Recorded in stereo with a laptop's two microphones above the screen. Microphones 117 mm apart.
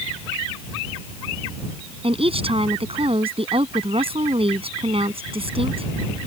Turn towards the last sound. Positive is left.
turn(degrees=-55)  # may be behind; listen again after turning